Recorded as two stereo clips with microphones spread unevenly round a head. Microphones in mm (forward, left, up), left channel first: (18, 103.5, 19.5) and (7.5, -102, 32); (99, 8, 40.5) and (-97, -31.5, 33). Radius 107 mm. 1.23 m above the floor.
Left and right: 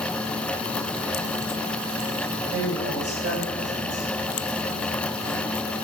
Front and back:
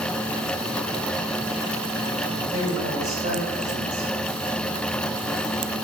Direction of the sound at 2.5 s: 110° right.